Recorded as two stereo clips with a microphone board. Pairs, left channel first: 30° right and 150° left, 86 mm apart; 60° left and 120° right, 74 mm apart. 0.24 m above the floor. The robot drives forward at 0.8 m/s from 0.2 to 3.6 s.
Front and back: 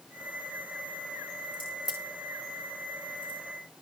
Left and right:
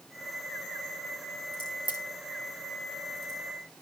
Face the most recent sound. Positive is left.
turn(degrees=80)